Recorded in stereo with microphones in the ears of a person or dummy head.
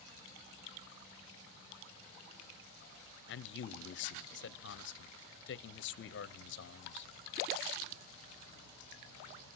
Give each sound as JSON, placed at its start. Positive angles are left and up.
{"t": 3.3, "sound": "a man speaking", "side_deg": 55, "distance_m": 0.6}